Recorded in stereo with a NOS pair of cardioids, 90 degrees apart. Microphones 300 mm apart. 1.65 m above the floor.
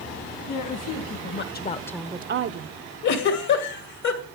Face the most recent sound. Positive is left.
turn(degrees=65)